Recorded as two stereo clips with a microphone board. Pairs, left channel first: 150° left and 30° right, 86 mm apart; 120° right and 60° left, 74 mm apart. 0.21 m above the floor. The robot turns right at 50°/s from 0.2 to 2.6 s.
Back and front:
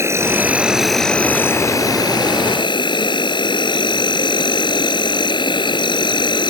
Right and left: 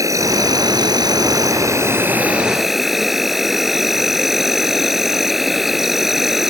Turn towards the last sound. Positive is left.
turn(degrees=145)